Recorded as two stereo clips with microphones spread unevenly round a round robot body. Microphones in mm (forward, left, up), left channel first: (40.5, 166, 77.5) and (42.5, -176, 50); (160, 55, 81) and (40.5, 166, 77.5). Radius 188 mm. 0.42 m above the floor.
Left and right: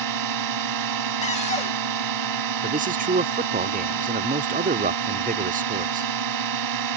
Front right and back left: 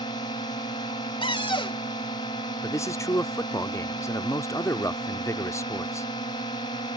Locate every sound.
0.0 s a drone: 115° right
1.2 s a cupboard door: 20° left
2.6 s a man speaking: 95° right